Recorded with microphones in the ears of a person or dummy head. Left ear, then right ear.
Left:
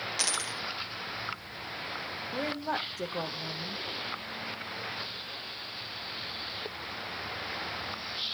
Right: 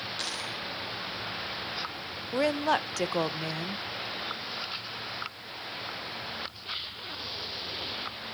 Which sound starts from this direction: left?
A dropped coin, at 0.2 s.